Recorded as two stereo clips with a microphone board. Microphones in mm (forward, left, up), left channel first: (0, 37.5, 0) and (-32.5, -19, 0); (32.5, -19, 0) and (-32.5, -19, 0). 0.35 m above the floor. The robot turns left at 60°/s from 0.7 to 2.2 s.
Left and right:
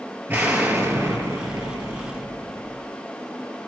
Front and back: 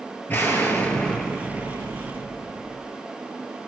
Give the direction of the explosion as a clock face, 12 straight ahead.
2 o'clock.